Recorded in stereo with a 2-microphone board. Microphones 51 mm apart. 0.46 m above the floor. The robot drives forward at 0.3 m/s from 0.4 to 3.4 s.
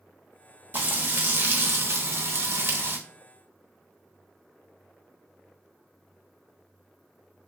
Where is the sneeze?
No sneeze in this recording.